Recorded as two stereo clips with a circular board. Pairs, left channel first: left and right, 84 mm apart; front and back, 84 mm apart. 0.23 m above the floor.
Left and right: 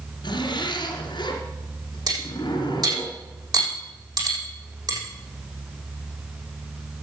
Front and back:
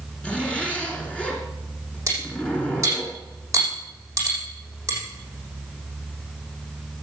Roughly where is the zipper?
Left.